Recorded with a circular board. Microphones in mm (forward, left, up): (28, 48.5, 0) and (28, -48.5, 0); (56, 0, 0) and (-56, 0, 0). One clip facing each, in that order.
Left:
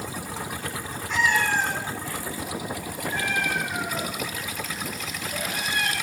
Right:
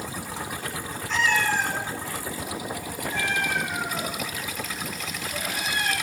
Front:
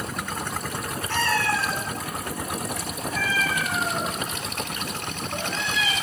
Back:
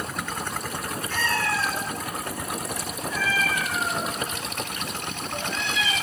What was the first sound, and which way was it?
A cat meowing, 5° left.